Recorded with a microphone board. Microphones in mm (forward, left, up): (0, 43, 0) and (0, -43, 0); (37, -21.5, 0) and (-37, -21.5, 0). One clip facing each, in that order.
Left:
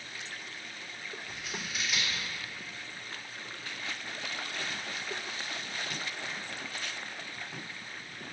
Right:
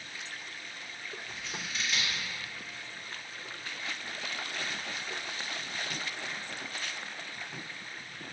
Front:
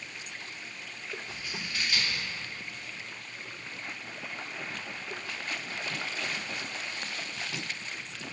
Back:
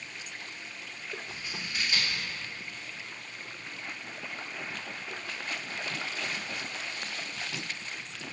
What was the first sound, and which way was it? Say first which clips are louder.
Scissors: left 1 dB, even; 155° left.